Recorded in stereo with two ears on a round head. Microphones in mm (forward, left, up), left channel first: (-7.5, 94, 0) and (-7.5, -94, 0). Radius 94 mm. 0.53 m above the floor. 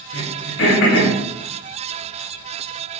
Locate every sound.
0.1 s throat clearing: 65° left (ahead or behind), 5 m